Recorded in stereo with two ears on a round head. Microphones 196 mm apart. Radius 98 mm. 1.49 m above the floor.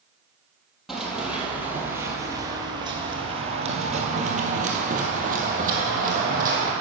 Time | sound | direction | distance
0.9 | running footsteps | centre (ahead or behind) | 2.0 m